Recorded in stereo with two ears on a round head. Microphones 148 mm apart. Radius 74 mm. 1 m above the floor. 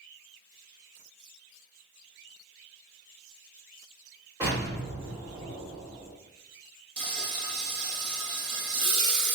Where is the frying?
25° right (ahead or behind), 0.8 m.